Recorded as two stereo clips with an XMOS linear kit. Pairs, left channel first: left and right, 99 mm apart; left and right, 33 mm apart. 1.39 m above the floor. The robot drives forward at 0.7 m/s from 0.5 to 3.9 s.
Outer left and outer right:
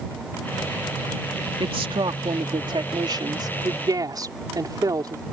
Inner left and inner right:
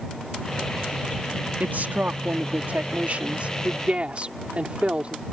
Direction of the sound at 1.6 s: 65° right (ahead or behind).